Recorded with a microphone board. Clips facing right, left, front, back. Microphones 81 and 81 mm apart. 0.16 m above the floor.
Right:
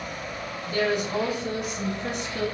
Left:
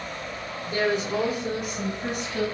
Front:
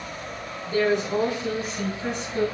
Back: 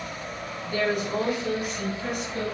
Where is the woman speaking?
50° left, 1.6 m; by 2.5 s 60° left, 2.5 m.